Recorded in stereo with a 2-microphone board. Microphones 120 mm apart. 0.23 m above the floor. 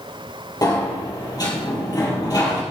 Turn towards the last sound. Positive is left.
turn(degrees=35)  # may be behind; listen again after turning